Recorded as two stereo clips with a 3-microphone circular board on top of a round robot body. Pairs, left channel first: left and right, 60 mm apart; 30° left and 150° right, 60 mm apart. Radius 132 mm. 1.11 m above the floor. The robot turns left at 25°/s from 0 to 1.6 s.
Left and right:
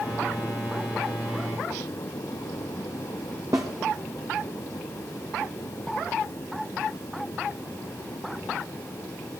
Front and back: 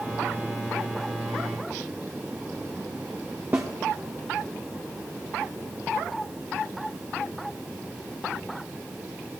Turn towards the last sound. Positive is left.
turn(degrees=-105)